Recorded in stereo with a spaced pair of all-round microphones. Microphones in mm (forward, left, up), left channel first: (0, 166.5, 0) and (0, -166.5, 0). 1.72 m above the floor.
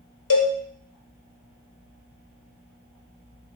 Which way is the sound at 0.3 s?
75° left (ahead or behind).